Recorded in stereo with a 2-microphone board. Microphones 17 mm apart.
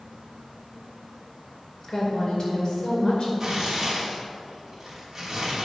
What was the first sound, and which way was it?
A woman speaking, 40° left (ahead or behind).